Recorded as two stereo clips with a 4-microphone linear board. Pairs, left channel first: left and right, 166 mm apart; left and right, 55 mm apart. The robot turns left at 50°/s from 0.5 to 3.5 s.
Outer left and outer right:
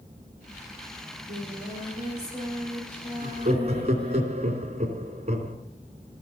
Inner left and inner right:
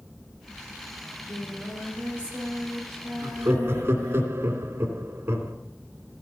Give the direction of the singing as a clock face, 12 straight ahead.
3 o'clock.